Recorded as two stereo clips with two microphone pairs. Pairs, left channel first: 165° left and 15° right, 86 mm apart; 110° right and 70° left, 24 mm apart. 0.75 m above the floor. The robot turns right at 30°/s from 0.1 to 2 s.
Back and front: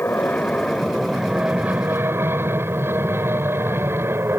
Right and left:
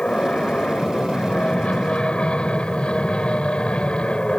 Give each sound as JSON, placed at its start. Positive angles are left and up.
{"t": 0.0, "sound": "an aircraft", "azimuth_deg": -135}